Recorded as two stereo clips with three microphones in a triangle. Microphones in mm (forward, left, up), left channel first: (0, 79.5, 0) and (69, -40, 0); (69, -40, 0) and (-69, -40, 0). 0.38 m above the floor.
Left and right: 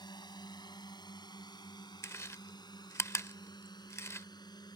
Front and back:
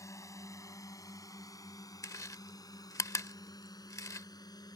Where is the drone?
65° left; by 4.8 s 60° left.